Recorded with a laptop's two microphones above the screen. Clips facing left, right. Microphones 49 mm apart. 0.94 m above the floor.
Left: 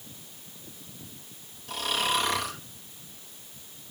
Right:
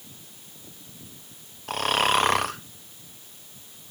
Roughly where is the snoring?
Right.